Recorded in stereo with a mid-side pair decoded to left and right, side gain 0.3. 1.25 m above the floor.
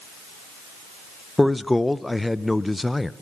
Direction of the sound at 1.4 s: 15° left.